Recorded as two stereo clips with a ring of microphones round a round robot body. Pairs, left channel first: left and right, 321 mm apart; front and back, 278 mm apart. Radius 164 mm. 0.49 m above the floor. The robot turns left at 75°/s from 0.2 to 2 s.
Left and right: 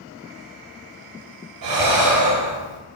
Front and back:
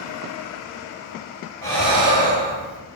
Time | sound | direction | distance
1.6 | breathing | 75° right | 3 m